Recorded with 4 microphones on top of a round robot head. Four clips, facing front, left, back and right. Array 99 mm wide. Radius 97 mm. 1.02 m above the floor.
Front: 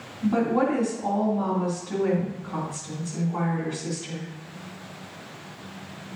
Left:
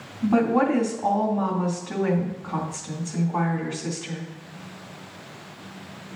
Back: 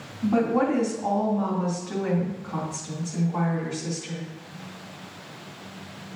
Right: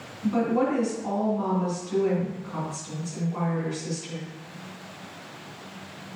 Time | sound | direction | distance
0.2 | a woman speaking | 110° left | 2.5 m